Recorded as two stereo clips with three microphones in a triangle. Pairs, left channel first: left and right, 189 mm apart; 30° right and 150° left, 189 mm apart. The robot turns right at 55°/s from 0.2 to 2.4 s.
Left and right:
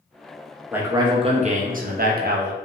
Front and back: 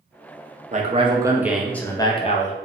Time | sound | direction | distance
0.7 | a man speaking | 170° right | 0.5 m